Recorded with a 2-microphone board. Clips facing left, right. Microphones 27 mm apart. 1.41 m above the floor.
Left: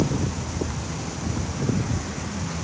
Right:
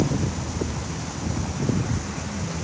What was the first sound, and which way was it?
Only background noise.